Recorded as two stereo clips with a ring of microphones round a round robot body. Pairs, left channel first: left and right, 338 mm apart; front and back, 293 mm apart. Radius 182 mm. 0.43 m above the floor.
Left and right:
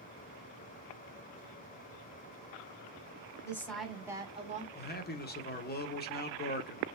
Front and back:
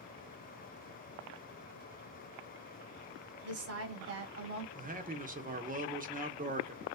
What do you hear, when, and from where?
3.4 s a woman speaking: 170° left, 1.7 m; by 4.7 s 150° right, 1.6 m
4.8 s a man speaking: 135° left, 1.2 m